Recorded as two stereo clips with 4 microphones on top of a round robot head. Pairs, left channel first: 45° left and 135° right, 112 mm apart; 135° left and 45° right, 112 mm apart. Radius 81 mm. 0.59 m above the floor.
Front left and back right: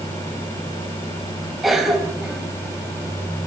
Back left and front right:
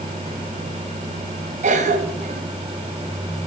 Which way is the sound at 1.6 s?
45° right.